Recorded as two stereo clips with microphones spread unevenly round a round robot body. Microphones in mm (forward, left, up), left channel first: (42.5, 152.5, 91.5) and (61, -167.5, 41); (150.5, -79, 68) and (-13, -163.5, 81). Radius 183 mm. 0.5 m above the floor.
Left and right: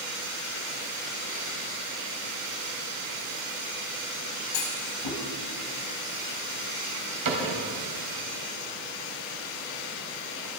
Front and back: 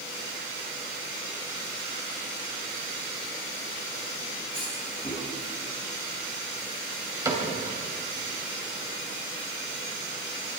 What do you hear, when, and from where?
4.5 s a clunk: 90° left, 3.5 m
7.2 s a cupboard door: 80° right, 3.5 m